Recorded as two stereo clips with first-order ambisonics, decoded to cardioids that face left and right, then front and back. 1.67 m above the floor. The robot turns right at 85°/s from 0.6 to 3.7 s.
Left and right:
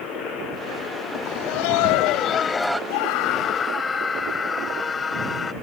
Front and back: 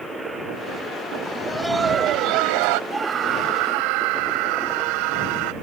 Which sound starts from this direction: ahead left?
Laughter, at 1.2 s.